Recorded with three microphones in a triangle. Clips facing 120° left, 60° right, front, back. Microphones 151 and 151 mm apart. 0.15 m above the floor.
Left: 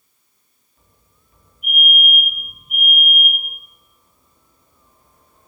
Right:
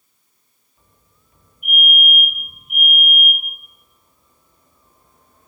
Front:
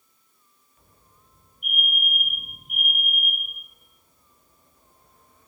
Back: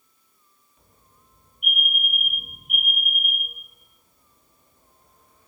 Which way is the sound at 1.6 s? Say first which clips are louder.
Even, back 1 dB; straight behind.